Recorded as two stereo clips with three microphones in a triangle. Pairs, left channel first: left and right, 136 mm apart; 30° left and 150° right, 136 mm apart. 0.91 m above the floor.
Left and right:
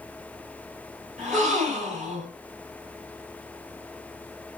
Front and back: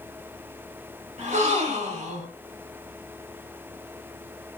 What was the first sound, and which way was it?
A gasp, 120° right.